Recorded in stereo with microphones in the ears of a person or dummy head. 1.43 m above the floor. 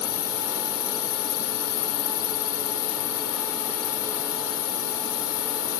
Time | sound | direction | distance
0.0 | a drone | 80° left | ?